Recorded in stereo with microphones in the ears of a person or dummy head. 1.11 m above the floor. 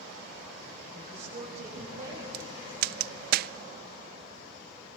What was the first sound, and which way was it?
A woman speaking, 45° right (ahead or behind).